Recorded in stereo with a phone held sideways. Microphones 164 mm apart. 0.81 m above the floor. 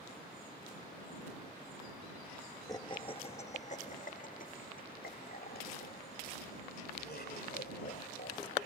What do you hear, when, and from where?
2.7 s laughter: 20° left (ahead or behind); by 8.7 s 80° left